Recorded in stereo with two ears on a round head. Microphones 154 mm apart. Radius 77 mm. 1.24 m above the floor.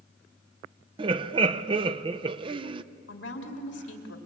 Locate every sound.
1.0 s laughter: 30° right (ahead or behind), 0.6 m
3.1 s a woman speaking: 80° left, 3.5 m